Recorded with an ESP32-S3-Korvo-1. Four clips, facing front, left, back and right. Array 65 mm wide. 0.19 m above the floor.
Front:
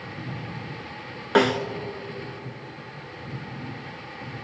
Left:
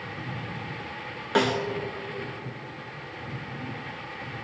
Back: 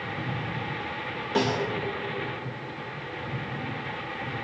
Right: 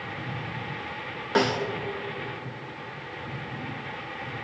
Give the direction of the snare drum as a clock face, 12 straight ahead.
12 o'clock.